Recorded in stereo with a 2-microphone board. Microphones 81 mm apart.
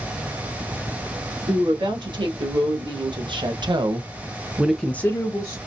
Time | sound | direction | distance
1.5 | a woman speaking | 85° right | 2.5 m